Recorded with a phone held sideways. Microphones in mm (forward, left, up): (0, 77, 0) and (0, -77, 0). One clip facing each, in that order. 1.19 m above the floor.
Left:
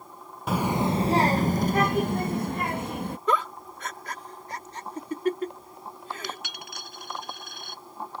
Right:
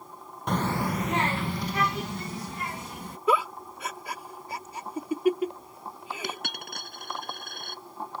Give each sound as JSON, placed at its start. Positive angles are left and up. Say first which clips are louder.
{"t": 0.5, "sound": "a child speaking", "louder": "left 3 dB", "side_deg": 5}
{"t": 3.3, "sound": "a giggle", "louder": "right 2 dB", "side_deg": -10}
{"t": 6.2, "sound": "a dropped coin", "louder": "right 2 dB", "side_deg": -55}